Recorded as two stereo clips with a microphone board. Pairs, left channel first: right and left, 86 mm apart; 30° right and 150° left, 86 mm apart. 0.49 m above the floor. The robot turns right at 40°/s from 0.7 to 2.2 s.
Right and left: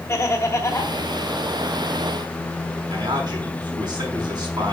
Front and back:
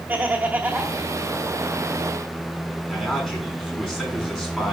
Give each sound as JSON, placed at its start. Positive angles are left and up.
{"t": 0.1, "sound": "laughter", "azimuth_deg": -150, "distance_m": 1.6}
{"t": 2.9, "sound": "a man speaking", "azimuth_deg": 55, "distance_m": 6.0}